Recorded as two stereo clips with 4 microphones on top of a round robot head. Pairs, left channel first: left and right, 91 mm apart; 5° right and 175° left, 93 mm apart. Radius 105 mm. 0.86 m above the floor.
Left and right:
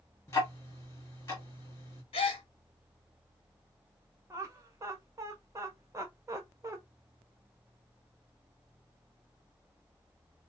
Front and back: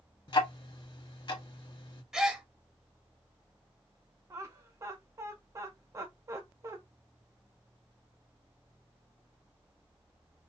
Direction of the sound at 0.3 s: 25° left.